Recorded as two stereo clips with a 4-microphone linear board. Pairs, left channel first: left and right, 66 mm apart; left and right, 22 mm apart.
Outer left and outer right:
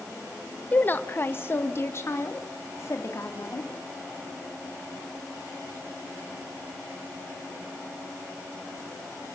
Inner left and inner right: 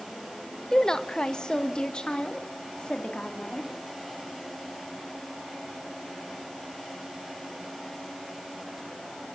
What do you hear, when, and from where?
0.7 s a woman speaking: 25° left (ahead or behind), 1.0 m; by 3.7 s 50° left (ahead or behind), 3 m